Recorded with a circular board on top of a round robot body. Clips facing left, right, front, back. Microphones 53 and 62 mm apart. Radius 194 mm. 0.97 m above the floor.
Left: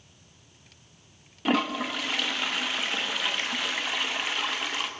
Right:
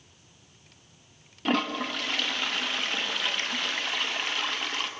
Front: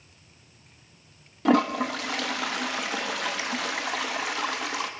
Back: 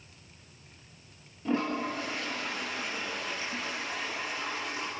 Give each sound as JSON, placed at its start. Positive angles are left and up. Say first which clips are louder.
{"t": 1.4, "sound": "a toilet flushing", "louder": "left 1 dB, front 8 dB", "azimuth_deg": 5, "distance_m": 1.5}